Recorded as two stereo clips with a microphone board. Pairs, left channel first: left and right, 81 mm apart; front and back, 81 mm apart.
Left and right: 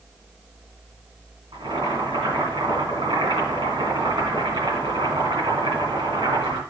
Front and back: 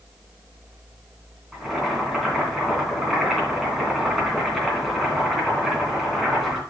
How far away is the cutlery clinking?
I don't hear cutlery clinking.